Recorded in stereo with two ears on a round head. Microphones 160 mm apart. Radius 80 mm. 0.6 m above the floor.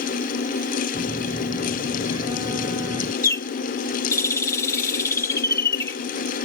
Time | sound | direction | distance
0.9 | a phone buzzing | 20° right (ahead or behind) | ?
3.2 | a bird | 15° left (ahead or behind) | ?